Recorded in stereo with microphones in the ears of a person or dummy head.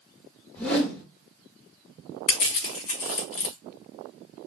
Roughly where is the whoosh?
Centre.